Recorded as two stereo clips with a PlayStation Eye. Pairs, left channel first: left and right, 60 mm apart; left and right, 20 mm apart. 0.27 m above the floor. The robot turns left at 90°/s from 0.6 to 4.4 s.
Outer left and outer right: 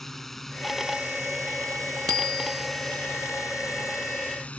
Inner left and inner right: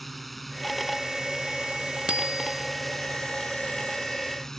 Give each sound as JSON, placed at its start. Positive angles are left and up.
{"t": 0.0, "sound": "a drone", "azimuth_deg": 5}
{"t": 2.1, "sound": "a bicycle bell", "azimuth_deg": -90}